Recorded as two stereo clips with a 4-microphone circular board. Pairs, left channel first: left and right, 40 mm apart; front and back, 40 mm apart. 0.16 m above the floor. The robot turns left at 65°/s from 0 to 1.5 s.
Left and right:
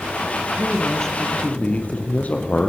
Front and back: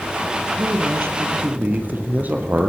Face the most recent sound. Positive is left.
turn(degrees=140)